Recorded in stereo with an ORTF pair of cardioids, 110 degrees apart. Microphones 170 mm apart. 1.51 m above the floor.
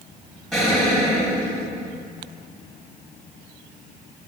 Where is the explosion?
5° left, 1.9 m.